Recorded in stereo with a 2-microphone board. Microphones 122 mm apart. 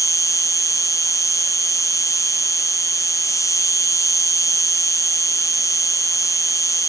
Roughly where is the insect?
Left.